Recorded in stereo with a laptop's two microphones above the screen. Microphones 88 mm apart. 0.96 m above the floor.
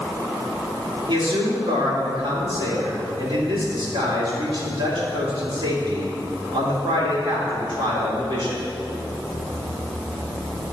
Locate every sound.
1.1 s a man speaking: 70° right (ahead or behind), 2.5 m